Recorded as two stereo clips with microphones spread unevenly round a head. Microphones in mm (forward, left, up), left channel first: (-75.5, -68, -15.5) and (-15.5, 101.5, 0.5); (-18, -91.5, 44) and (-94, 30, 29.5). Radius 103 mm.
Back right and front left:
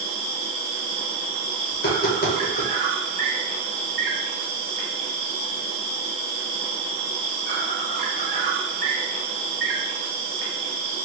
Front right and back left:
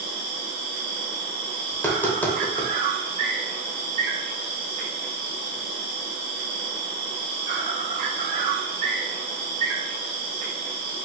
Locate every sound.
0.0 s an insect: 105° left, 1.6 m
1.7 s tapping: 140° right, 1.5 m